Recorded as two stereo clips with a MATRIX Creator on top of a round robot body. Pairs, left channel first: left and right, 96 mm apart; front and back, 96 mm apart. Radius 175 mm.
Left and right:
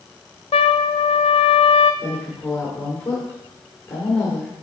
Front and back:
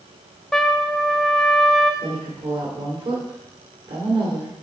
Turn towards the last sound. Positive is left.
turn(degrees=160)